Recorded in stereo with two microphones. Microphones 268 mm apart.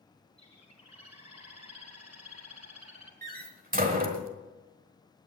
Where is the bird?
65° right (ahead or behind), 3 m.